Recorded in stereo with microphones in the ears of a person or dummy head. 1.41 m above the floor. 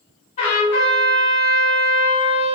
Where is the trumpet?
40° left (ahead or behind), 2.0 m.